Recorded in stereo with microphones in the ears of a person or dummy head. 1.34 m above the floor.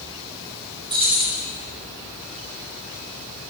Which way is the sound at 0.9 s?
25° right (ahead or behind).